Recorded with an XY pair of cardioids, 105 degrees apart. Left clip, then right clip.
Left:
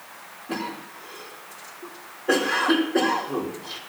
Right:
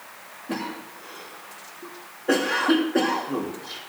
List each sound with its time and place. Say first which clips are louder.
0.5 s a cough: even; 15° right, 3 m